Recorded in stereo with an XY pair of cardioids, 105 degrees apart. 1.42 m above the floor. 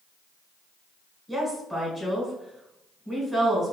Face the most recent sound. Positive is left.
turn(degrees=0)